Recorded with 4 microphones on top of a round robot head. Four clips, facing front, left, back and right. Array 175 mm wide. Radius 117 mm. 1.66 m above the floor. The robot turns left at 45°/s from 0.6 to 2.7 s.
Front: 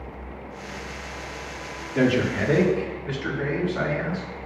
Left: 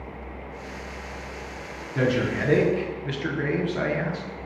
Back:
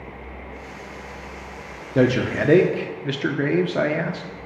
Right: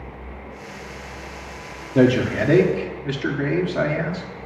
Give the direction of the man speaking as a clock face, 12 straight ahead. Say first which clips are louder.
Right 7 dB, back 2 dB; 4 o'clock.